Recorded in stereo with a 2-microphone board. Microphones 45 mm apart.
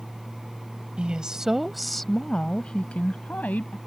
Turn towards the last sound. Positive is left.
turn(degrees=40)  # may be behind; listen again after turning